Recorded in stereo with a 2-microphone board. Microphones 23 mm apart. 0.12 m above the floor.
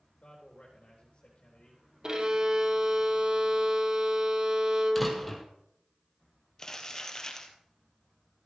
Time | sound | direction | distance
0.2 | a man speaking | 60° left (ahead or behind) | 3.5 m
2.0 | a violin | 40° right (ahead or behind) | 1.2 m
5.0 | a door slam | 5° right (ahead or behind) | 2 m
6.6 | crumpling | 25° left (ahead or behind) | 1.8 m